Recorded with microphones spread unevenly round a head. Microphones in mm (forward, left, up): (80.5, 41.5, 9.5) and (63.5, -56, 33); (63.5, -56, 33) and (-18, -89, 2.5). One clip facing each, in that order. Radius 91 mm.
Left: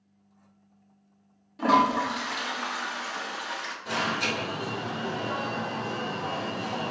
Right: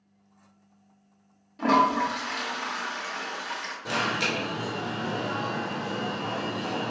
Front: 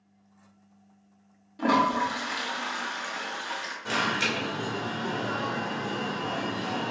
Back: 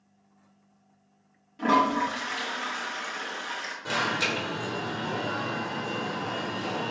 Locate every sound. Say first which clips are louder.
1.6 s a toilet flushing: even, back 1 dB; 20° right, 1.0 m
3.9 s an alarm: right 1 dB, even; 80° right, 1.7 m